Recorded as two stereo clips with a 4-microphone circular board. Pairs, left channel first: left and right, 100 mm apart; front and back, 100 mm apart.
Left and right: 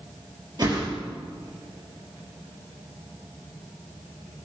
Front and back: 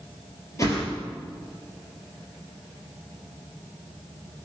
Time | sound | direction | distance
0.6 | a whoosh | 55° right | 3 m